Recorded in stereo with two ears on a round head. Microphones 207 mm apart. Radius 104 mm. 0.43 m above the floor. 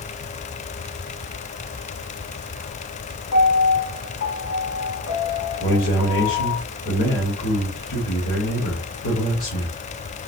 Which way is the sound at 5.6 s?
55° left (ahead or behind).